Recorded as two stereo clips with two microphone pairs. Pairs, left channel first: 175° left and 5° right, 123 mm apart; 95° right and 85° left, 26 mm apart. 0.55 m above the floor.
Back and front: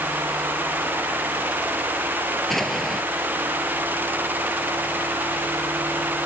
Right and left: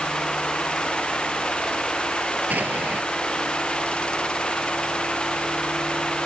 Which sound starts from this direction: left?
An explosion, at 2.5 s.